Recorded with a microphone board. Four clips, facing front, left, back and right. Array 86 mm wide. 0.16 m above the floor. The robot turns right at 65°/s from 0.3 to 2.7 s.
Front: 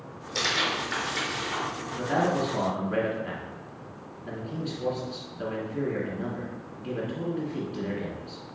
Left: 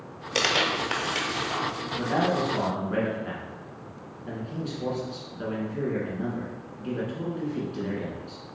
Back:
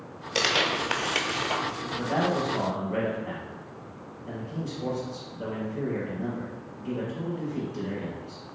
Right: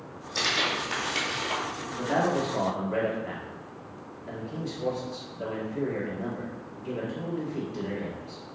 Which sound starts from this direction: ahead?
A man speaking, at 1.9 s.